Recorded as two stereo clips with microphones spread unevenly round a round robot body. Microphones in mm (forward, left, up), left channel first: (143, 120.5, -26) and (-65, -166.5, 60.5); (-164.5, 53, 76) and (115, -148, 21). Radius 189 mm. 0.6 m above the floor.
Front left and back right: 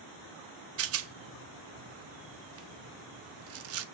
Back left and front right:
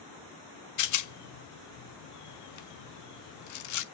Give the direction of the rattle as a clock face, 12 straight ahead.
6 o'clock.